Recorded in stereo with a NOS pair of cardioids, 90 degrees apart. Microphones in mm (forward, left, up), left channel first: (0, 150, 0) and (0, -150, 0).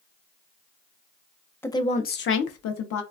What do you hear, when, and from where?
1.6 s a woman speaking: 10° left, 0.6 m; by 3.0 s 70° left, 0.8 m